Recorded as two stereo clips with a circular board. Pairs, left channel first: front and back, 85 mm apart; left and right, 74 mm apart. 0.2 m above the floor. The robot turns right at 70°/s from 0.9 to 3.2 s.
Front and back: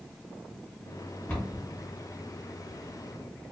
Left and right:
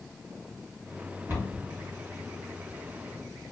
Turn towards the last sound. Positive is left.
turn(degrees=65)